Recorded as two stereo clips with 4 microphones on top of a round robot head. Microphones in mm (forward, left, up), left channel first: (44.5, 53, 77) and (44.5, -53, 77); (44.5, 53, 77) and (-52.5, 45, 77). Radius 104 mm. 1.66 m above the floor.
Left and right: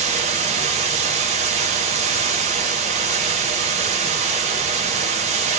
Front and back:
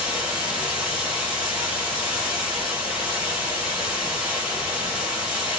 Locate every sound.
0.0 s running water: 90° right, 0.9 m